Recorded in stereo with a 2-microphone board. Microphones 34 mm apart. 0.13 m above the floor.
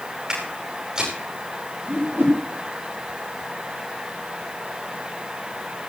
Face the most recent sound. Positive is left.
turn(degrees=-85)